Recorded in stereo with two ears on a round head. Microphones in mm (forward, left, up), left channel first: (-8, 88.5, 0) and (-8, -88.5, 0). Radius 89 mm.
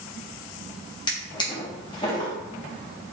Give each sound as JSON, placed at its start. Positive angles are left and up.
{"t": 1.1, "sound": "a drawer", "side_deg": 20, "distance_m": 0.9}